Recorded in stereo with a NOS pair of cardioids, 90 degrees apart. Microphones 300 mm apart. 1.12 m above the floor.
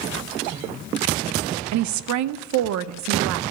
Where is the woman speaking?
70° right, 0.5 m.